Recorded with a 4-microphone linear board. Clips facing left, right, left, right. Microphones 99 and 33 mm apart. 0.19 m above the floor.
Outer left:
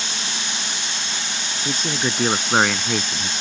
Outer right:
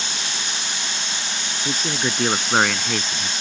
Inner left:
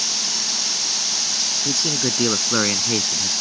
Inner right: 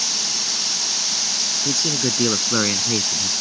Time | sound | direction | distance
1.6 | a man speaking | centre (ahead or behind) | ?